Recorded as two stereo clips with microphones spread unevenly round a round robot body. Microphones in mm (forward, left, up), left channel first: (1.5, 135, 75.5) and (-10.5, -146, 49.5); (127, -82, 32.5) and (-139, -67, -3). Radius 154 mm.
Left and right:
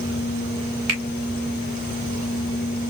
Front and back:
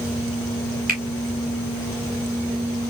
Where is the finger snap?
125° right, 2 m.